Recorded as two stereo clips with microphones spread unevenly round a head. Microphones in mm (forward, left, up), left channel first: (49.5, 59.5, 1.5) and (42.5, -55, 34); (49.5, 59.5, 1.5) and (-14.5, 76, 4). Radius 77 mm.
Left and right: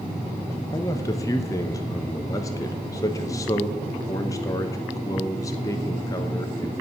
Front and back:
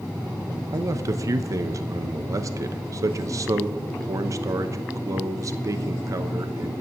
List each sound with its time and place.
0.7 s a man speaking: 140° left, 0.8 m